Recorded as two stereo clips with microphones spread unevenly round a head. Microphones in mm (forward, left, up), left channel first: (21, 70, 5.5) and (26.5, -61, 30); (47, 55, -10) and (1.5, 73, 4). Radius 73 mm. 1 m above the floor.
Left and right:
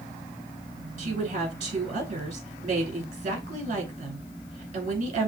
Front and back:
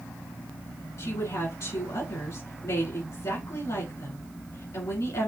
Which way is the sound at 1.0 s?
50° right.